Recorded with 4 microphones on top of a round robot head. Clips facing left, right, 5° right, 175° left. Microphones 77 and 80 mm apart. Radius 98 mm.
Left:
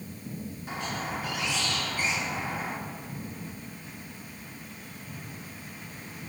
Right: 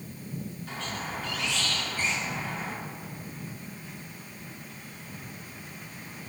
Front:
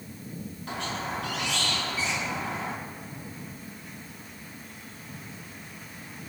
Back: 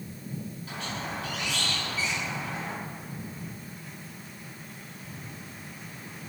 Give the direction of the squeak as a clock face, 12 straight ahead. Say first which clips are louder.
Left 4 dB, front 4 dB; 11 o'clock.